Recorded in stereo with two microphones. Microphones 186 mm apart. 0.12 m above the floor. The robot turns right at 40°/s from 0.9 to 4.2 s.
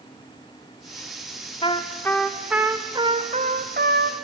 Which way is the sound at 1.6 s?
150° left.